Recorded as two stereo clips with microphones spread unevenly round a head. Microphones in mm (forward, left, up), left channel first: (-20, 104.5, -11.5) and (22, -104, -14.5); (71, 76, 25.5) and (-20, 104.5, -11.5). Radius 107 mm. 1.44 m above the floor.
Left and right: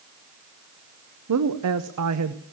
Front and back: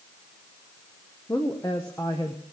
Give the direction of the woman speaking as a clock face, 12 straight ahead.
3 o'clock.